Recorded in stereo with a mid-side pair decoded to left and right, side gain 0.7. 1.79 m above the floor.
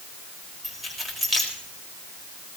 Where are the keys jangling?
20° right, 4.5 m.